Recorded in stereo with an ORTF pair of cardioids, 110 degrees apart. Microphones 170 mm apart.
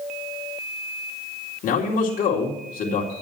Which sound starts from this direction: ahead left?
A man speaking, at 1.6 s.